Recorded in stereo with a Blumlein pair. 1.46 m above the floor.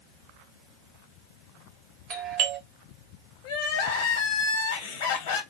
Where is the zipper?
I don't hear a zipper.